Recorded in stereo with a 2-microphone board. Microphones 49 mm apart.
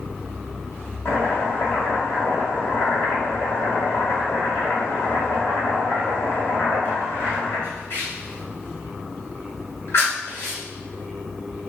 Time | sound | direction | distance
1.1 | chopping | 60° left (ahead or behind) | 1.5 m